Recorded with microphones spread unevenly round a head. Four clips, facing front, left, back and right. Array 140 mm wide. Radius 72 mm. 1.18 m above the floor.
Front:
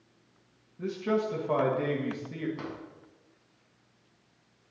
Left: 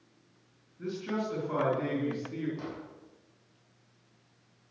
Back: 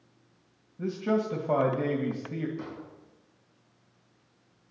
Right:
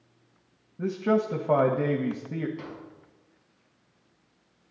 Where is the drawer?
Straight ahead, 6 m.